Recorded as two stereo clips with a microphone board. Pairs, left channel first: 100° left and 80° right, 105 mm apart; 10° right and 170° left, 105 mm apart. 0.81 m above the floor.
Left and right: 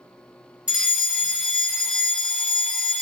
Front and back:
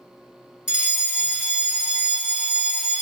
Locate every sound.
0.7 s a fire alarm: 135° right, 1.3 m